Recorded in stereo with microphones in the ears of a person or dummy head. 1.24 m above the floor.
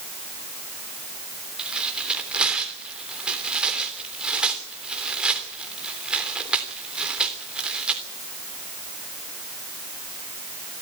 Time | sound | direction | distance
1.6 | tearing paper | 5° right (ahead or behind) | 3 m